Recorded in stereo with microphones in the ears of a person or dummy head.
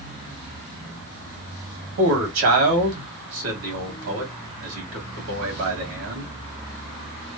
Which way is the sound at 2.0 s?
70° right (ahead or behind).